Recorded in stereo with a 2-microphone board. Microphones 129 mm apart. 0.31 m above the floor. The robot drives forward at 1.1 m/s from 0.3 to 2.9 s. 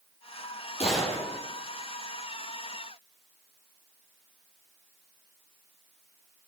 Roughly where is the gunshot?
Left.